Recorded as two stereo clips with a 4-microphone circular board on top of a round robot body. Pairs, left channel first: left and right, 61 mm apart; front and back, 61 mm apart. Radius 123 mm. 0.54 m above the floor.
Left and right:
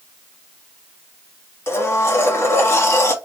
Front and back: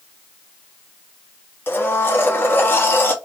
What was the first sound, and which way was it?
A blender, 55° left.